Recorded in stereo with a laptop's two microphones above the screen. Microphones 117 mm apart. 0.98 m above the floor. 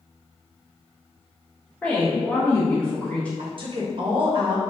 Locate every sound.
1.8 s a woman speaking: 10° left (ahead or behind), 1.3 m
3.4 s a woman speaking: 45° right (ahead or behind), 1.3 m